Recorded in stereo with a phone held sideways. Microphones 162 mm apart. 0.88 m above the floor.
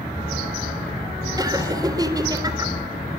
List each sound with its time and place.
1.4 s laughter: 20° right (ahead or behind), 3.5 m